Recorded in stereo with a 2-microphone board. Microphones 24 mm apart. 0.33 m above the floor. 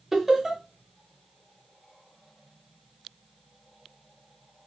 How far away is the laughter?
About 0.9 m.